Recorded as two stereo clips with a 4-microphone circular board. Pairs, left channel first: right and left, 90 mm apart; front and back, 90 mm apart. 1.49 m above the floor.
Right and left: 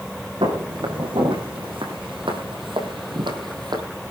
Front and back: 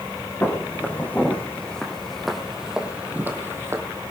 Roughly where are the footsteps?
Ahead left.